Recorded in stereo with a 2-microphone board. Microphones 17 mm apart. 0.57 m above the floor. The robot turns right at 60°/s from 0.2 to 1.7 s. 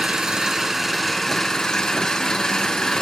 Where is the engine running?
55° right, 3 m; by 3.0 s 35° left, 3 m.